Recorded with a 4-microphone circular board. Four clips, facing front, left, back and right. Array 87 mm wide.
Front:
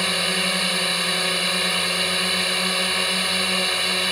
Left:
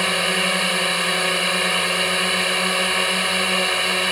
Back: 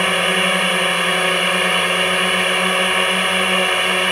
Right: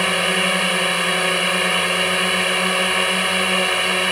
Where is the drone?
165° right.